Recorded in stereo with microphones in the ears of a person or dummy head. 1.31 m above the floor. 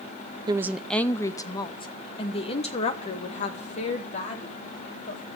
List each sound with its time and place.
0.5 s a woman speaking: 20° right (ahead or behind), 0.6 m; by 5.2 s 40° left (ahead or behind), 4 m